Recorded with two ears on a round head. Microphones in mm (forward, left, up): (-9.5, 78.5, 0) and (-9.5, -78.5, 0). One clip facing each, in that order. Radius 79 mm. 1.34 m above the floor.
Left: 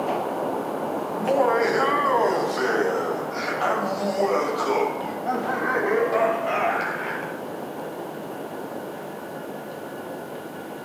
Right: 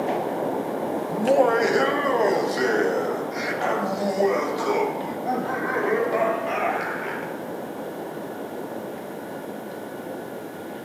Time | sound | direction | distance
1.1 | laughter | 45° right (ahead or behind) | 1.1 m